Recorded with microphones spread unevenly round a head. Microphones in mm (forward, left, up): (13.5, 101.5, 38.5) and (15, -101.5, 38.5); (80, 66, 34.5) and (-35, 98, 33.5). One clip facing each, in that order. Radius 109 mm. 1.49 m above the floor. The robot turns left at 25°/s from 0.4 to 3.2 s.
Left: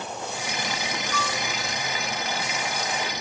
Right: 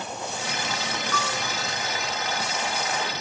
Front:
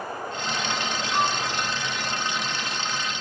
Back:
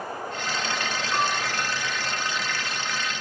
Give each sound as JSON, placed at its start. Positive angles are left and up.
{"t": 1.1, "sound": "a piano", "azimuth_deg": -120, "distance_m": 1.9}